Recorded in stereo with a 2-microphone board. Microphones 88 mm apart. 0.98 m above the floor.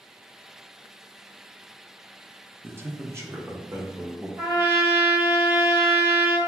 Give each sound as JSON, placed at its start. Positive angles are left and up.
{"t": 2.6, "sound": "a man speaking", "side_deg": -25, "distance_m": 0.6}
{"t": 4.4, "sound": "a trumpet", "side_deg": -25, "distance_m": 1.2}